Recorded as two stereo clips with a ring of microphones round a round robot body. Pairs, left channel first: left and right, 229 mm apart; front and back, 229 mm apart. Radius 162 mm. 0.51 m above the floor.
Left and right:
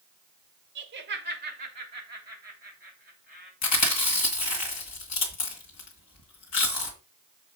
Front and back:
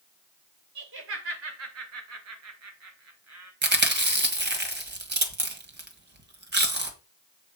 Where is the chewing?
135° left, 1.8 m.